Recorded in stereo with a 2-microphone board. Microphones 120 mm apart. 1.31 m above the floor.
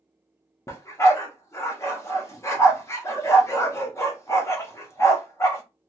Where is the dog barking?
25° left (ahead or behind), 0.7 m.